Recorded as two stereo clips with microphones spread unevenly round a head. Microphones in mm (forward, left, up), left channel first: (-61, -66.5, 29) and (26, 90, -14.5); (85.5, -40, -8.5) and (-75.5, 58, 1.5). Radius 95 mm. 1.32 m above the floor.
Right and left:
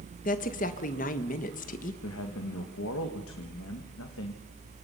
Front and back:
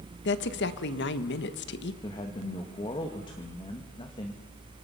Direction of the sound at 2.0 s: 95° right.